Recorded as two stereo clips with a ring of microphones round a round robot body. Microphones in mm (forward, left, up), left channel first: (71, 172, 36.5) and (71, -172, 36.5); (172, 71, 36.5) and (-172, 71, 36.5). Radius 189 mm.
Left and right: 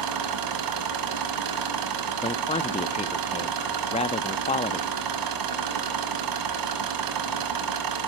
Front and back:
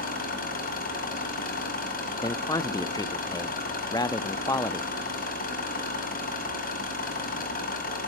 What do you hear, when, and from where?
0.0 s an engine running: 70° right, 2.5 m
2.2 s a man speaking: 60° left, 0.6 m